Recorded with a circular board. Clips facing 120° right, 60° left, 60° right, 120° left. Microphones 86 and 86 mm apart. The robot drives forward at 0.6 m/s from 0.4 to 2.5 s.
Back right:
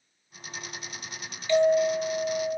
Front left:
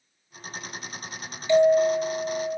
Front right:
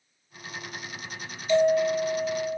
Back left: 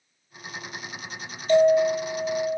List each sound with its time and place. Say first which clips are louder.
1.5 s a bell: front left 3 dB, back left 3 dB; 125° left, 0.6 m; by 2.6 s 155° left, 1.0 m